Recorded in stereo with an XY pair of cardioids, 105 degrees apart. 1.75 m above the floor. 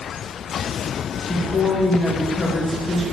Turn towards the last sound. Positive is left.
turn(degrees=30)